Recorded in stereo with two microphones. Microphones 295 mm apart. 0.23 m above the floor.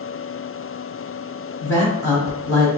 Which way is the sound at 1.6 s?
10° left (ahead or behind).